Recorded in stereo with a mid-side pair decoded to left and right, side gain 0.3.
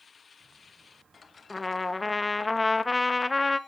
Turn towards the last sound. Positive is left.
turn(degrees=30)